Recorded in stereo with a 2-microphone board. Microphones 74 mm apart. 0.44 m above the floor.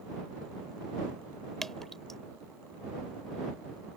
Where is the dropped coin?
I don't hear a dropped coin.